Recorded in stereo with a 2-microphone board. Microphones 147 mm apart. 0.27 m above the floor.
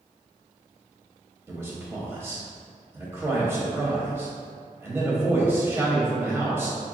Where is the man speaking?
15° right (ahead or behind), 1.0 m.